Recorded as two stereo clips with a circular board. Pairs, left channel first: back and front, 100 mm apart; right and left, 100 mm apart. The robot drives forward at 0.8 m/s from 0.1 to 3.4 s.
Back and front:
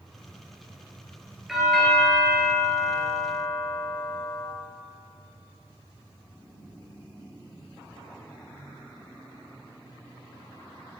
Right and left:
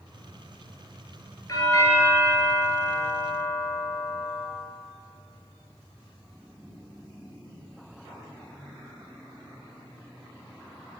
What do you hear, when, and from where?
1.5 s a doorbell: 85° right, 2 m; by 4.5 s 140° right, 2.5 m